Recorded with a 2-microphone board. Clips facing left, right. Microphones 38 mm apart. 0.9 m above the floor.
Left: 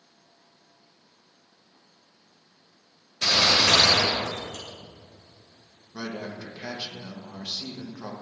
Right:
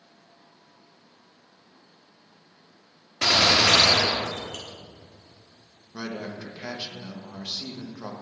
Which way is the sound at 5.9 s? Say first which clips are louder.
Even; 15° right (ahead or behind).